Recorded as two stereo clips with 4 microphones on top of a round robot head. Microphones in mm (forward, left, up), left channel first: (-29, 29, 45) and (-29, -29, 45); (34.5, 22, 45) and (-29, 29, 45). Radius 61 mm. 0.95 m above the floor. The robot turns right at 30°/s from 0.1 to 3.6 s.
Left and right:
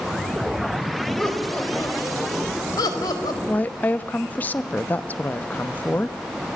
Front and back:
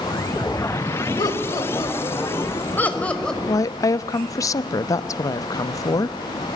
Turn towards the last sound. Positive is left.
turn(degrees=25)